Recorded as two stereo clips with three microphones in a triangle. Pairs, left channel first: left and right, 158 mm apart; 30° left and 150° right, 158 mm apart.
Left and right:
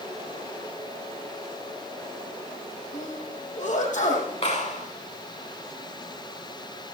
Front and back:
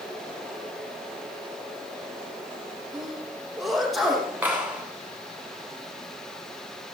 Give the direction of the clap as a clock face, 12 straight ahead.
8 o'clock.